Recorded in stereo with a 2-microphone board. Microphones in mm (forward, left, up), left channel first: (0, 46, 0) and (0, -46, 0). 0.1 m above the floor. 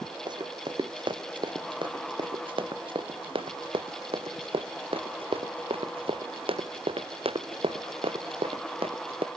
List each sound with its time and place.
0.3 s running footsteps: 55° right (ahead or behind); by 9.3 s 90° right